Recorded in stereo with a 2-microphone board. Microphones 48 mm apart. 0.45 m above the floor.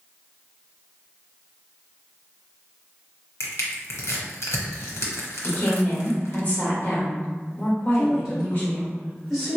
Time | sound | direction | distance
3.4 | crushing | 85° left | 0.9 m
5.4 | a woman speaking | 40° left (ahead or behind) | 1.5 m
7.9 | a woman speaking | centre (ahead or behind) | 1.0 m